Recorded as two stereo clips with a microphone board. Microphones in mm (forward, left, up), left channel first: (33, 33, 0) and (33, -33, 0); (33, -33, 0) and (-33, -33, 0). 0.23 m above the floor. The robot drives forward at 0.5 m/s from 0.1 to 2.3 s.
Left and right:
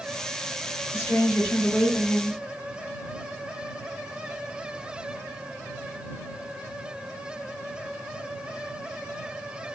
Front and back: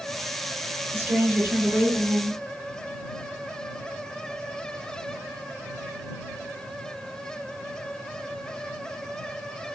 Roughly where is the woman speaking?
Behind left.